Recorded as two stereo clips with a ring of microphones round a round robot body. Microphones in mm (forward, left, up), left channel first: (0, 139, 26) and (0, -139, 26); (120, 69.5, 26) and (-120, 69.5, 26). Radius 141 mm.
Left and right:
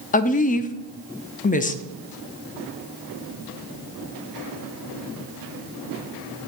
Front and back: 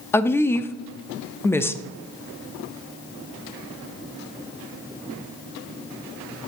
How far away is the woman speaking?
About 0.6 m.